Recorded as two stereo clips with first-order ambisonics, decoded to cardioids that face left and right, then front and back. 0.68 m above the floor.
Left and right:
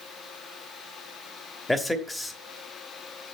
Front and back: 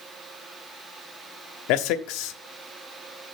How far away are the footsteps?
I don't hear footsteps.